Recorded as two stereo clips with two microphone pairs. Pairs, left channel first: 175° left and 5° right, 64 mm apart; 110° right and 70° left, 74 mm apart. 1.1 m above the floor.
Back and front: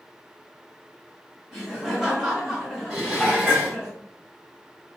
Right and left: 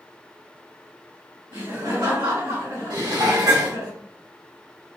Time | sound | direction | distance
1.5 | laughter | 75° left | 1.3 m
2.9 | dishes clattering | 70° left | 2 m